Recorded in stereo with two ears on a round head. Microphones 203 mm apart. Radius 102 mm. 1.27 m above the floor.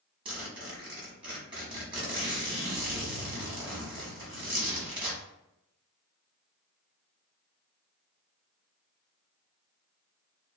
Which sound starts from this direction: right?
A zipper, at 0.2 s.